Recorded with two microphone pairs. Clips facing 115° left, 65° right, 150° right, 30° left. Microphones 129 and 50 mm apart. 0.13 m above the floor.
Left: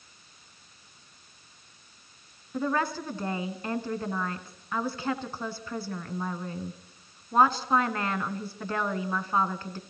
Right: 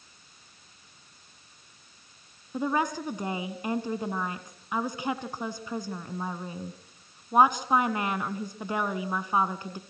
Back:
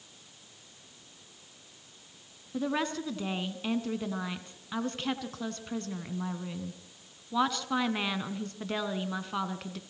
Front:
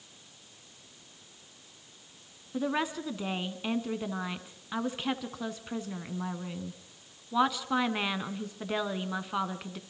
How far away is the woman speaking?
About 1.5 m.